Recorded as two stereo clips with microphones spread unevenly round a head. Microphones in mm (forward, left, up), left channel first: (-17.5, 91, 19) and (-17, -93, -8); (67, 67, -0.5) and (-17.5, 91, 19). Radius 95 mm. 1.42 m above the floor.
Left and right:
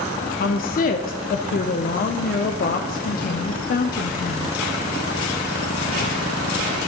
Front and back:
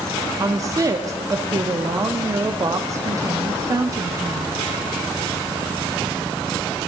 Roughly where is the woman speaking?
Behind left.